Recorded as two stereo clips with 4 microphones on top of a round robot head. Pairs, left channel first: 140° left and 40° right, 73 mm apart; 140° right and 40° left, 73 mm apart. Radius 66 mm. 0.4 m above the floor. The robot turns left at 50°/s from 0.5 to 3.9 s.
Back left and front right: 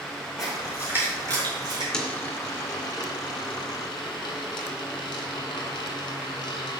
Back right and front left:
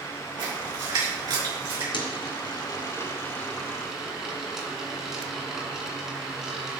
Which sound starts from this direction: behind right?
A dropped coin, at 1.9 s.